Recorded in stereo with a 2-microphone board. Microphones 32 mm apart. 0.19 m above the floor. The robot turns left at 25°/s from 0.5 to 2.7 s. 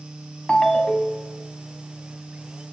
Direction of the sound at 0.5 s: 25° left (ahead or behind).